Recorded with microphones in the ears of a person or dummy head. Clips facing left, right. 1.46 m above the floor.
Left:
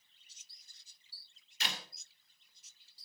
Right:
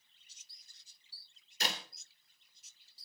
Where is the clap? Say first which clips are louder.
Right 4 dB; 40° right (ahead or behind), 3.5 m.